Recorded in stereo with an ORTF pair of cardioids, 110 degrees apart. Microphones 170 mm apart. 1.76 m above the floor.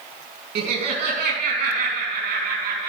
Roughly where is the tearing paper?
I don't hear tearing paper.